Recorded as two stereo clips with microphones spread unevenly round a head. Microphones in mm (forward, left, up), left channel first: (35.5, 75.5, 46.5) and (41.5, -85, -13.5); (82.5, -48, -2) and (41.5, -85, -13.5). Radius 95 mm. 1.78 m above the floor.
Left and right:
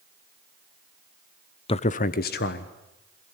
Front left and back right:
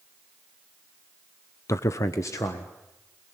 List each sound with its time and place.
1.7 s a man speaking: 50° left, 0.7 m; by 2.7 s 90° left, 1.6 m